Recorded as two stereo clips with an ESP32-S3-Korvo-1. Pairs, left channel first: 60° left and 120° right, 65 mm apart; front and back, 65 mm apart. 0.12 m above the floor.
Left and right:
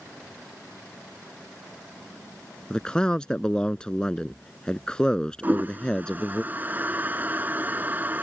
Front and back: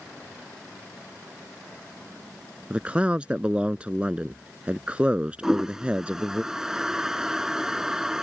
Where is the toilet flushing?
105° right.